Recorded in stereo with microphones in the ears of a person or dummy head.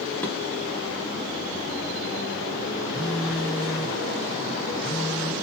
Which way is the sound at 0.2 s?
20° left (ahead or behind).